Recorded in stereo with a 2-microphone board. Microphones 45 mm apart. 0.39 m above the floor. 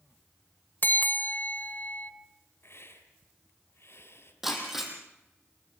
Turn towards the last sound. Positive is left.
turn(degrees=-5)  # may be behind; listen again after turning